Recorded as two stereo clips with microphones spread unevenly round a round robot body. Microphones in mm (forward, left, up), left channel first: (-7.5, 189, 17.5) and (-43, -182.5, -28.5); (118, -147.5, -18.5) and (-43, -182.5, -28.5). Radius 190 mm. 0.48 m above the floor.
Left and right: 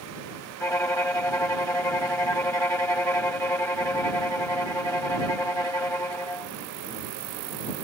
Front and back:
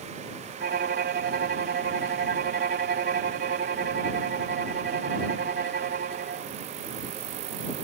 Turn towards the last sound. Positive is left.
turn(degrees=170)